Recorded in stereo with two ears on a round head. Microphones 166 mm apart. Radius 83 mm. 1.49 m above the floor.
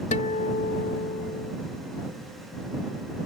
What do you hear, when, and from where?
0.1 s a guitar: 40° left (ahead or behind)